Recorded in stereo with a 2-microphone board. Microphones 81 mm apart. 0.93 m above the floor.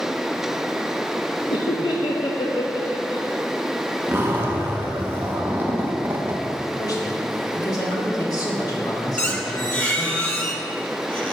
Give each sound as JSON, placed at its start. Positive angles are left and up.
{"t": 1.5, "sound": "laughter", "side_deg": 70, "distance_m": 0.7}
{"t": 4.1, "sound": "a zipper", "side_deg": -25, "distance_m": 1.1}
{"t": 6.8, "sound": "a man speaking", "side_deg": 50, "distance_m": 2.0}
{"t": 9.2, "sound": "a squeak", "side_deg": 20, "distance_m": 1.2}